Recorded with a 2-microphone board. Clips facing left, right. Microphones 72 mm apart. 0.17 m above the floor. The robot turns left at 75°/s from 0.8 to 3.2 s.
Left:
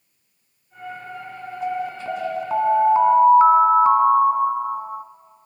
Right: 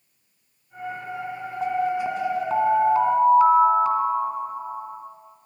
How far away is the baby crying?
No baby crying in this recording.